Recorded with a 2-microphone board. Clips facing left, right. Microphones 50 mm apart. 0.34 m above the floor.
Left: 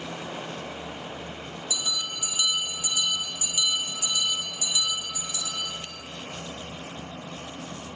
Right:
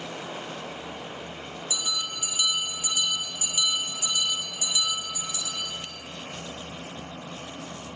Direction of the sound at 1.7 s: 30° right (ahead or behind).